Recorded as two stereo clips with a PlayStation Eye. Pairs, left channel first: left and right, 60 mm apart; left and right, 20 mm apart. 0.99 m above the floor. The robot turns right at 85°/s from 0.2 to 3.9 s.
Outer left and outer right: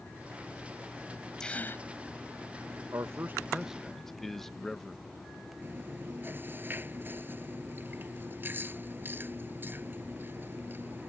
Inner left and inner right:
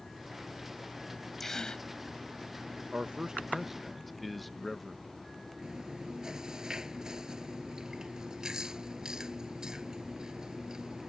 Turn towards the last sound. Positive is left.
turn(degrees=-35)  # may be behind; listen again after turning